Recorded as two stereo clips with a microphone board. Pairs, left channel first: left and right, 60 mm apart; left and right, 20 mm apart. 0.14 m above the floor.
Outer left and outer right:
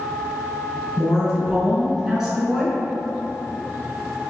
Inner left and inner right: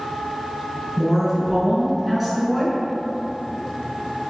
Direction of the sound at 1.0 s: 15° right (ahead or behind).